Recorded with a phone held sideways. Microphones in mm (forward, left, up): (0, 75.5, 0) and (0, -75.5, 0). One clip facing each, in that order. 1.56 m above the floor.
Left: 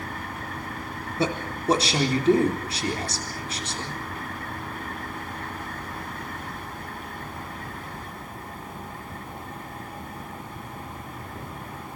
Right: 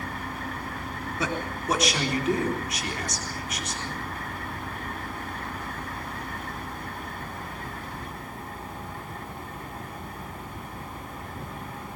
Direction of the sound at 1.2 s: 30° left (ahead or behind).